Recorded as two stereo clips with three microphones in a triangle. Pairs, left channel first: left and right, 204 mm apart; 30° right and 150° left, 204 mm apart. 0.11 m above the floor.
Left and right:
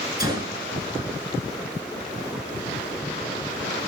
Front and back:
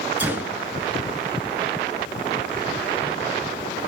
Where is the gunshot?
140° right, 1.8 m.